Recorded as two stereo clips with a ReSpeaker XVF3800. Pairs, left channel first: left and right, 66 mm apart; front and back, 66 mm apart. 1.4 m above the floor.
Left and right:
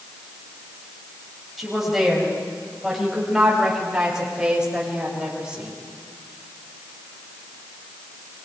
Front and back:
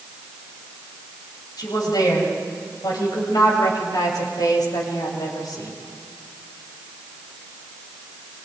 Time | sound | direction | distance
1.6 | a woman speaking | straight ahead | 8 m